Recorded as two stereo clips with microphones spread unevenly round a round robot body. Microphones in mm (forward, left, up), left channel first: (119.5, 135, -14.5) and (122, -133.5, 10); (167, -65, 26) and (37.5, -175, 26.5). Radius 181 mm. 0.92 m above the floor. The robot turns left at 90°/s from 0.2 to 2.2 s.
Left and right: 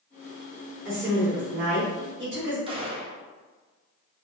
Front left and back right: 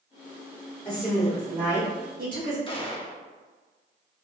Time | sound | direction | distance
0.8 | a woman speaking | 25° right | 1.1 m
2.7 | a gunshot | 20° right | 0.7 m